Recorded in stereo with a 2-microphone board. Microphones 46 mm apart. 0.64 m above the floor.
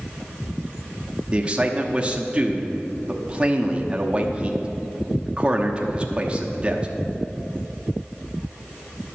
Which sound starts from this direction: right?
A man speaking, at 1.3 s.